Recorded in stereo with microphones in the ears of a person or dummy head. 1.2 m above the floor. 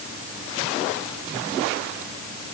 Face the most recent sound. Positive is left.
No sound to turn to.